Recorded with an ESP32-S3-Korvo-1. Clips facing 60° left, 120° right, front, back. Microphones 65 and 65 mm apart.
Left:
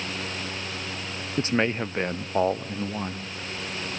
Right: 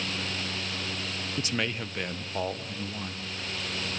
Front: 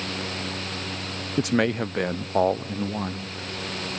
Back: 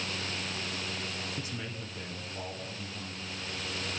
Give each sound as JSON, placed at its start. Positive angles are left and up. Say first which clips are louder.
{"t": 1.4, "sound": "a man speaking", "louder": "left 8 dB, front 17 dB", "azimuth_deg": 5, "distance_m": 0.5}